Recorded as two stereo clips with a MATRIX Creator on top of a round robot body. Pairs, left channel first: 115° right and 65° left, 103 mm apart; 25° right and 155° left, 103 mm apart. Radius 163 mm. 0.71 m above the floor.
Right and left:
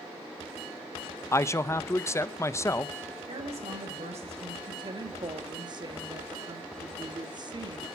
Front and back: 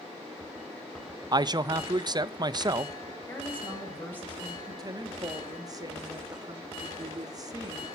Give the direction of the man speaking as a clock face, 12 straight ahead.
6 o'clock.